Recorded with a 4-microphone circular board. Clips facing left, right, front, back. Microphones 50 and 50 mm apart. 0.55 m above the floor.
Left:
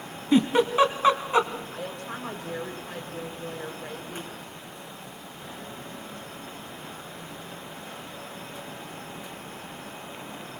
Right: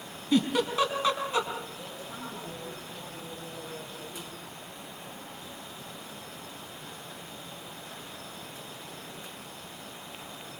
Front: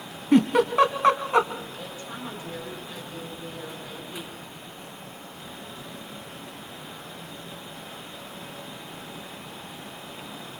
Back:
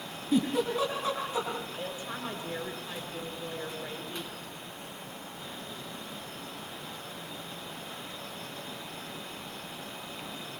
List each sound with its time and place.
0.3 s a giggle: 25° left, 2.5 m
1.7 s a woman speaking: 115° left, 6 m